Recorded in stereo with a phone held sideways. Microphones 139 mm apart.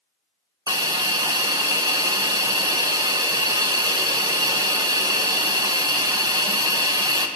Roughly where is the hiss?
Right.